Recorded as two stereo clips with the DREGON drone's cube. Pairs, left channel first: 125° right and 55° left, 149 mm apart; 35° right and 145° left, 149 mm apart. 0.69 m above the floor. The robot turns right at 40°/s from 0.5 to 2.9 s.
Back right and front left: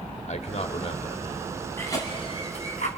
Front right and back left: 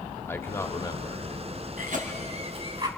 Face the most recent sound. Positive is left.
turn(degrees=-150)